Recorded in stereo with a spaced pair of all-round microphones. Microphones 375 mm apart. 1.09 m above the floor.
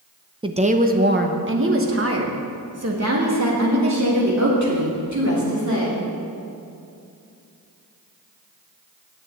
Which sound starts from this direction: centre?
A woman speaking, at 0.4 s.